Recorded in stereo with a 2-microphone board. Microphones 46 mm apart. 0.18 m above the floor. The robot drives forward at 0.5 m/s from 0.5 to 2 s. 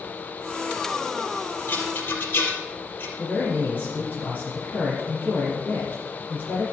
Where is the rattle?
50° left (ahead or behind), 2.5 m.